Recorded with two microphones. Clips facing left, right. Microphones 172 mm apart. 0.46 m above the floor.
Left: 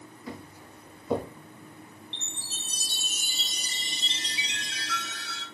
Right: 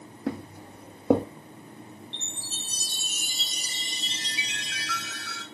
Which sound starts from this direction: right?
Footsteps, at 0.3 s.